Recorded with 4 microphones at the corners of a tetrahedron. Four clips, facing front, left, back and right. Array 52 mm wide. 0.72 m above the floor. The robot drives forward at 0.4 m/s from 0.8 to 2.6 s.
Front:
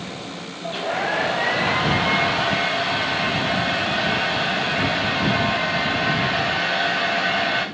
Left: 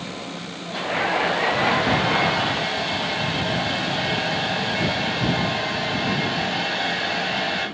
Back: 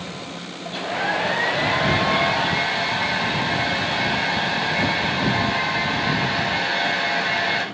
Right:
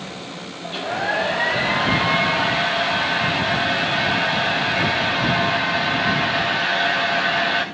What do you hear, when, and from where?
0.6 s a hair dryer: 50° right, 9.5 m; by 7.7 s 55° right, 9 m